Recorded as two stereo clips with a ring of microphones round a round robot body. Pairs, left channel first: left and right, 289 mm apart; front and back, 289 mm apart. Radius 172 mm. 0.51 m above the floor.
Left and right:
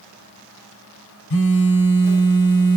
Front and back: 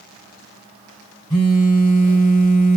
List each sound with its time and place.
1.3 s a phone buzzing: 80° left, 1.2 m